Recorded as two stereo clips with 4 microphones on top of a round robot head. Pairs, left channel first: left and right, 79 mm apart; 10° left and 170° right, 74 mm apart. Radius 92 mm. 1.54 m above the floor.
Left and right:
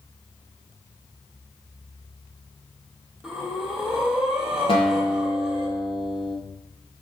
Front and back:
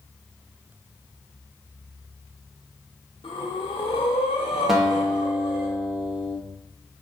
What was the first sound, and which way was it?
Breathing, 5° right.